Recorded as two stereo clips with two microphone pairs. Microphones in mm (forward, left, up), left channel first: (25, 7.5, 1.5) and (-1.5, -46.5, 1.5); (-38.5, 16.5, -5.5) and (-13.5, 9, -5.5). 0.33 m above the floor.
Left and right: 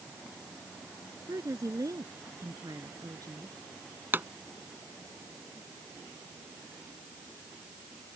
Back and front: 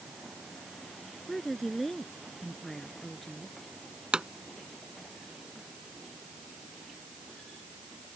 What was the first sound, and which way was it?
A woman speaking, 115° right.